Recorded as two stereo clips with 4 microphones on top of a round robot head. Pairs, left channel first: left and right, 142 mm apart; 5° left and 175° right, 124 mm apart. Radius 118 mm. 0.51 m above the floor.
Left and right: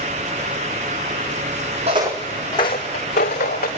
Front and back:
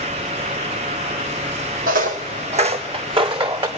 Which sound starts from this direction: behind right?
Footsteps, at 1.9 s.